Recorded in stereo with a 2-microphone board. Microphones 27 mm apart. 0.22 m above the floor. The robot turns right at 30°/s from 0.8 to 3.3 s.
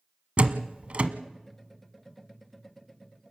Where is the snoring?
I don't hear snoring.